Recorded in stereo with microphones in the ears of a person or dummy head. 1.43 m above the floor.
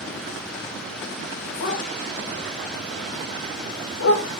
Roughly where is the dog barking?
Left.